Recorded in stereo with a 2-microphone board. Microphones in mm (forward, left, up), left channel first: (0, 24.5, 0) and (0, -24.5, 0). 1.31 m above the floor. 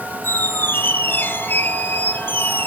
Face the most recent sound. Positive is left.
turn(degrees=45)  # may be behind; listen again after turning